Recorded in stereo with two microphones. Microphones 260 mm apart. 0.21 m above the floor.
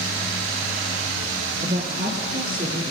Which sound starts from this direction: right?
A woman speaking, at 1.6 s.